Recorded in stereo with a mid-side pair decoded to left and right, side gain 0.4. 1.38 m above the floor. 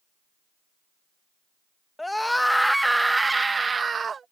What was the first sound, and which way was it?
A scream, 15° left.